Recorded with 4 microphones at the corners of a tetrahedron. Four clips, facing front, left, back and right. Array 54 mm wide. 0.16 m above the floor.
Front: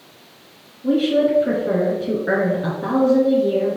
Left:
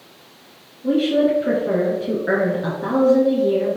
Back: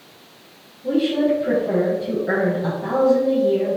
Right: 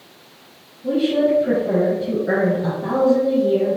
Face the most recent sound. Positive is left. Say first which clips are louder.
# left 1 dB, front 2 dB
turn(degrees=45)